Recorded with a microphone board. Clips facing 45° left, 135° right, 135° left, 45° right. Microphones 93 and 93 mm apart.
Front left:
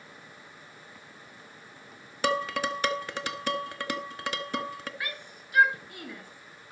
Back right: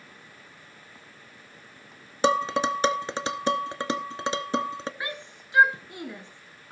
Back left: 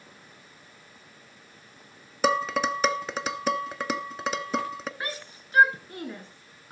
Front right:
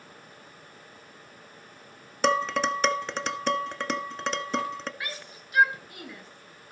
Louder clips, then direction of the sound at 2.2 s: Back right 5 dB, even; 145° right.